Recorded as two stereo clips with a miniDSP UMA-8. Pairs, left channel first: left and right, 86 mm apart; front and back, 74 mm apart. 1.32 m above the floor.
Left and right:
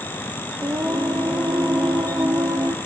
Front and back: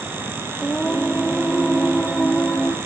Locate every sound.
0.6 s singing: 70° right, 1.0 m